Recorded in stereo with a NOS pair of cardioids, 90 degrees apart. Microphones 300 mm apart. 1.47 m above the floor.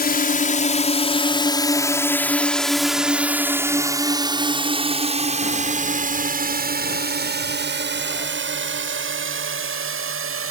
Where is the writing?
No writing in this recording.